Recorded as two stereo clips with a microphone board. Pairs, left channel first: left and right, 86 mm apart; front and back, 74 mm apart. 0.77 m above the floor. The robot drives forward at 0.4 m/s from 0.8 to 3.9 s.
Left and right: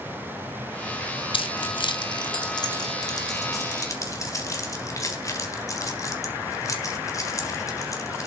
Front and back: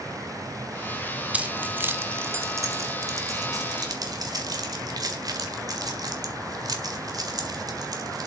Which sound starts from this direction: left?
Keys jangling, at 1.3 s.